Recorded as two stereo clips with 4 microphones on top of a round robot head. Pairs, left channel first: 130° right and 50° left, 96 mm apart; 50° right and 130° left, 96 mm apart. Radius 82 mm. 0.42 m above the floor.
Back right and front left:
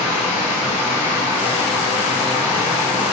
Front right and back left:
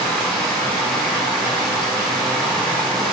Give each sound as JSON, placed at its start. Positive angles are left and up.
{"t": 0.0, "sound": "running water", "azimuth_deg": -135, "distance_m": 1.2}